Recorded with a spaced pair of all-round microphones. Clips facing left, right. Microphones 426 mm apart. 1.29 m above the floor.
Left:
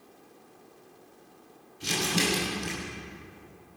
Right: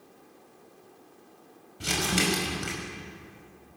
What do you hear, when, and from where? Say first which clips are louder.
1.8 s crumpling: right 1 dB; 80° right, 6 m